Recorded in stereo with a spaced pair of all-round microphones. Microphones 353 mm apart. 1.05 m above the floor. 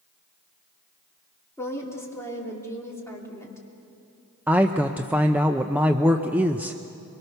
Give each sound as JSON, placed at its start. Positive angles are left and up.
{"t": 1.6, "sound": "a woman speaking", "side_deg": 10, "distance_m": 3.0}
{"t": 4.5, "sound": "a man speaking", "side_deg": -5, "distance_m": 0.6}